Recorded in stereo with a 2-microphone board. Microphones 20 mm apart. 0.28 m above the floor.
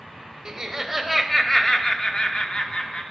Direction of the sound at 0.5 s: 25° right (ahead or behind).